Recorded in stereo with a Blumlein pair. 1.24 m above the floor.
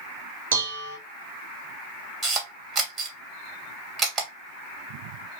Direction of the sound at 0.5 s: 60° right.